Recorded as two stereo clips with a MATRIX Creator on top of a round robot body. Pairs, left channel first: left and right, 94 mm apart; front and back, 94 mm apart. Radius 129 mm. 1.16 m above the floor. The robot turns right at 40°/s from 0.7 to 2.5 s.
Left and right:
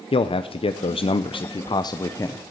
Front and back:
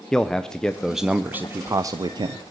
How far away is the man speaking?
About 0.6 m.